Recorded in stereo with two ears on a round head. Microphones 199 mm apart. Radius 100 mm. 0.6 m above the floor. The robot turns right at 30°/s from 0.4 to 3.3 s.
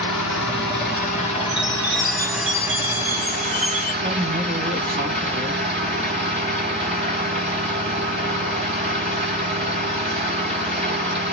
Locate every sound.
0.0 s an engine running: 120° left, 1.6 m; by 11.3 s 150° right, 1.6 m
1.5 s a chime: straight behind, 2 m; by 3.9 s 125° right, 2 m
4.0 s a woman speaking: 40° right (ahead or behind), 1.6 m